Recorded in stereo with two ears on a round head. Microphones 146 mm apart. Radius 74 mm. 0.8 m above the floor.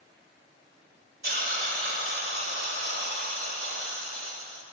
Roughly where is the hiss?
Right.